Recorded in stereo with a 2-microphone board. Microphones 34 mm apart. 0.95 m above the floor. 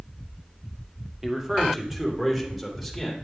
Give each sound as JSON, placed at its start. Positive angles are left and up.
{"t": 1.2, "sound": "a man speaking", "side_deg": -15, "distance_m": 2.5}